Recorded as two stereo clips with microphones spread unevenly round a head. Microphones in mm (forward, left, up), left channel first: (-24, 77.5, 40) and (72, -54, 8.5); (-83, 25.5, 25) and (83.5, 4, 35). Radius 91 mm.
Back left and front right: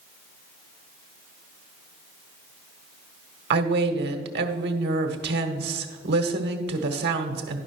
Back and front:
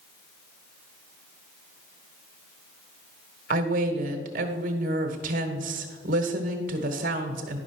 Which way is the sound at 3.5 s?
50° right.